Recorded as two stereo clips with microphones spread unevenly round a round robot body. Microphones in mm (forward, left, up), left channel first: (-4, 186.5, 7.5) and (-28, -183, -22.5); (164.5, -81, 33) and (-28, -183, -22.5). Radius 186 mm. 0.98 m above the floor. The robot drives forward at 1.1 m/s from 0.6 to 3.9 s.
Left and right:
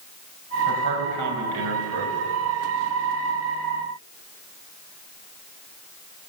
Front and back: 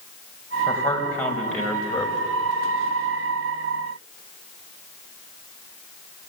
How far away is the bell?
No bell in this recording.